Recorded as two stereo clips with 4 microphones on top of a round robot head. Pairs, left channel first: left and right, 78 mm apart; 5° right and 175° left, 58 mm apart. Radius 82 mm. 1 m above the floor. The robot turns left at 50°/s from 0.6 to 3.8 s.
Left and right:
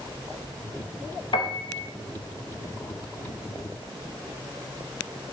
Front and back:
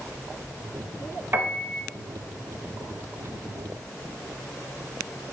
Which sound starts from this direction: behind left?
A piano, at 1.3 s.